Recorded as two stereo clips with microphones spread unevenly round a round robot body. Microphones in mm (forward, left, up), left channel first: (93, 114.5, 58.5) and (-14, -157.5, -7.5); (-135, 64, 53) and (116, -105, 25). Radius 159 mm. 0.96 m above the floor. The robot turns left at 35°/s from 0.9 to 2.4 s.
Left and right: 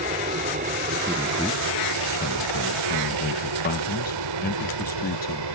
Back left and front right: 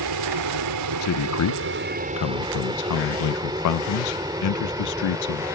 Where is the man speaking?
175° right; by 5.5 s 135° left.